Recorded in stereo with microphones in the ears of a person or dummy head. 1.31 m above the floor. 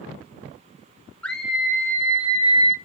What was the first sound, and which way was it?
A scream, 10° left (ahead or behind).